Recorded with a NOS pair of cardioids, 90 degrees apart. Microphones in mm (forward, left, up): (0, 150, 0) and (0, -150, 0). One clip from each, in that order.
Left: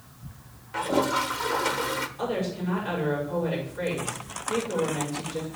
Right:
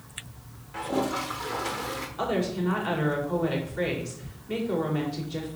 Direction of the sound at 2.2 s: 65° right.